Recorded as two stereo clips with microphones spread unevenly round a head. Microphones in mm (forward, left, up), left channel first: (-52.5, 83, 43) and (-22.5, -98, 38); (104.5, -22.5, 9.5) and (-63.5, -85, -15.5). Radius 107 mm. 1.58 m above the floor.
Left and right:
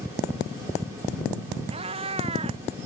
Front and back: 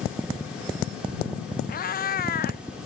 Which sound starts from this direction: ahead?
A cat meowing, at 1.7 s.